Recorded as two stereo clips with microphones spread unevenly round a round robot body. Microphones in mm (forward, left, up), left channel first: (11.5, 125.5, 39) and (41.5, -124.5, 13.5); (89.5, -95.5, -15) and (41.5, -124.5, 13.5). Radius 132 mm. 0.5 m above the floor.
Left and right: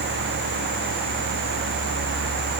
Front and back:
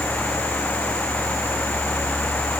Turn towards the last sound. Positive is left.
No sound to turn to.